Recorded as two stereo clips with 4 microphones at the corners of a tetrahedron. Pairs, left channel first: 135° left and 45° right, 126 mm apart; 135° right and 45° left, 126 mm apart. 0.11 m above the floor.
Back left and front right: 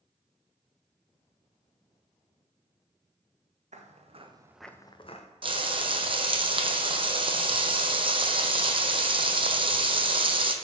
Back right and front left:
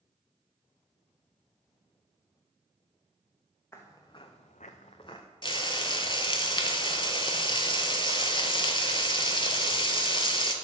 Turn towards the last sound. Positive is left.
turn(degrees=-85)